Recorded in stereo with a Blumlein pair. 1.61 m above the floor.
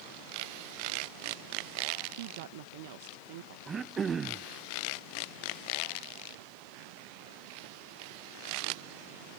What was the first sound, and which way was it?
A woman speaking, 50° right.